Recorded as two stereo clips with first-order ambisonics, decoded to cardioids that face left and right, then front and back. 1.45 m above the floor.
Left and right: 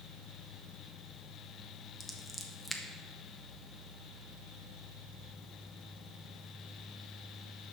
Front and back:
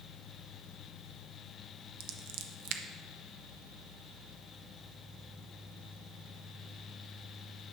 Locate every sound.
2.0 s scissors: 175° left, 0.8 m